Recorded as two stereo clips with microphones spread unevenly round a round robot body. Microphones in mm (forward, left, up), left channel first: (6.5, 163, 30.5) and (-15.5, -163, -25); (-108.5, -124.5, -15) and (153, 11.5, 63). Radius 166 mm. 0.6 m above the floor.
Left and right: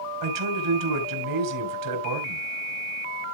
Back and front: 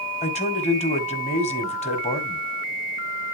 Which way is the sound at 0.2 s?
90° right.